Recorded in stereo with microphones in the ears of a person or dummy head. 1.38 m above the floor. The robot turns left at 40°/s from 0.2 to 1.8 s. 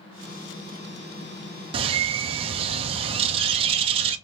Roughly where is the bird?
Right.